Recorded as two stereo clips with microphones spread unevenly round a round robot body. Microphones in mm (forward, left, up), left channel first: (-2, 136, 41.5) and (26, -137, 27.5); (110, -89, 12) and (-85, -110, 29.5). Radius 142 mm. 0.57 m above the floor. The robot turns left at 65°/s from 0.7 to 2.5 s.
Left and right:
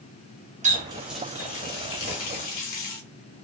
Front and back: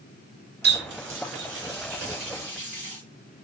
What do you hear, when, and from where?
0.6 s a running tap: 145° right, 0.9 m; by 3.0 s 100° left, 0.9 m